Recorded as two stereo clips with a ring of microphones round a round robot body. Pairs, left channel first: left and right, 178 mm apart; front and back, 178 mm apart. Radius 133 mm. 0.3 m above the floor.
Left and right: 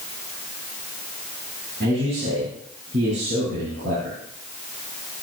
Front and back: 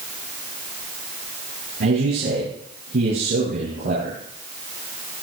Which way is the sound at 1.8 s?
140° right.